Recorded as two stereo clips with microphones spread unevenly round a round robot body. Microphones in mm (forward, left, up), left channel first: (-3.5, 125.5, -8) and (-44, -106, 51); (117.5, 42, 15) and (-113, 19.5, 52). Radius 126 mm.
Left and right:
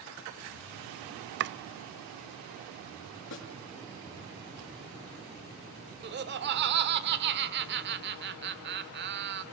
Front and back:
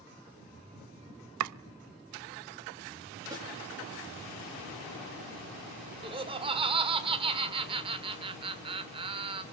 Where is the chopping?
150° right, 0.5 m.